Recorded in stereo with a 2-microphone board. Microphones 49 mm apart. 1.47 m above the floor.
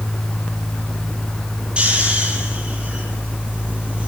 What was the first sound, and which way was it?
Snoring, 25° right (ahead or behind).